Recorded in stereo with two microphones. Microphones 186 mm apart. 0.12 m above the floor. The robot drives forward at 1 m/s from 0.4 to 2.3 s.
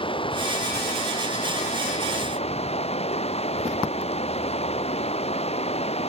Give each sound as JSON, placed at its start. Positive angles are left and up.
{"t": 0.0, "sound": "running water", "side_deg": 30}